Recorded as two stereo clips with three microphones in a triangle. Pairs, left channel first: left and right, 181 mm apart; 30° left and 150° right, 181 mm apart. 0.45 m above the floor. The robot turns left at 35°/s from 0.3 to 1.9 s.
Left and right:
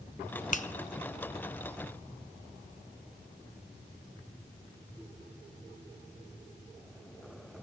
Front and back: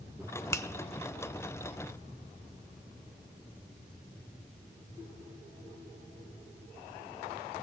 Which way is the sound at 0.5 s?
95° left.